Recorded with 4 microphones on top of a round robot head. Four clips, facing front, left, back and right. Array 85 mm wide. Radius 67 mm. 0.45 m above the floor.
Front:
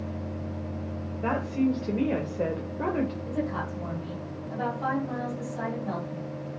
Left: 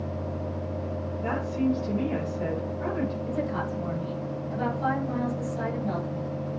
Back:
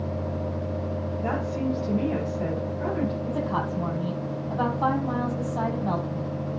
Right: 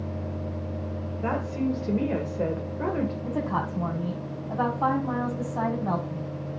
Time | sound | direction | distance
1.2 | a woman speaking | 50° right | 2 m
3.2 | a woman speaking | 130° right | 4.5 m